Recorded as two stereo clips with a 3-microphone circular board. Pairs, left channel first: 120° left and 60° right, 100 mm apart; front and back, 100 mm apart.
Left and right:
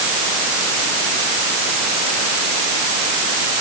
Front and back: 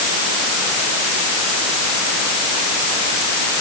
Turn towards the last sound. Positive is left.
No sound to turn to.